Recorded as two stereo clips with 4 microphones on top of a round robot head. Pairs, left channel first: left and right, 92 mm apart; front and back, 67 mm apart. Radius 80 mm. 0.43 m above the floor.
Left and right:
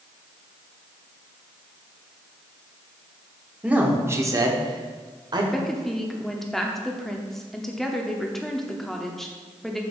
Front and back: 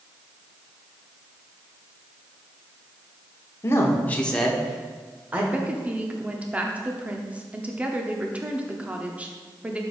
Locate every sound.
3.6 s a man speaking: 20° right, 1.3 m; by 5.4 s 115° right, 1.8 m
5.5 s a woman speaking: 175° left, 0.9 m